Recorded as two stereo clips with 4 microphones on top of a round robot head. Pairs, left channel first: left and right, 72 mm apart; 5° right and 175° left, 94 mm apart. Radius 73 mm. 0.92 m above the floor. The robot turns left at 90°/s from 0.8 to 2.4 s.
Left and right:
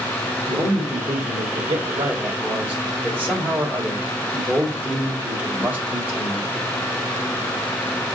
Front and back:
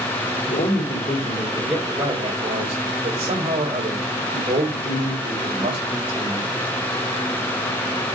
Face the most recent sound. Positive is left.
turn(degrees=-155)